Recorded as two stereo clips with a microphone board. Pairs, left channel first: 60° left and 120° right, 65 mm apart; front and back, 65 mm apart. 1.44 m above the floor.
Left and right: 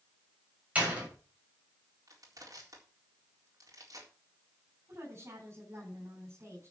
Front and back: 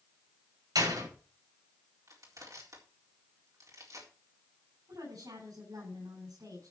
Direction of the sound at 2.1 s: 150° right.